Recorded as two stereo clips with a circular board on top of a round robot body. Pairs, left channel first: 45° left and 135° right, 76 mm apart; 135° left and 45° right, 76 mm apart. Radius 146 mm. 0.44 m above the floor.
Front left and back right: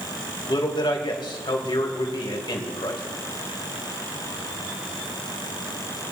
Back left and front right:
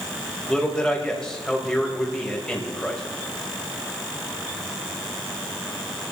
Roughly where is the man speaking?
Ahead left.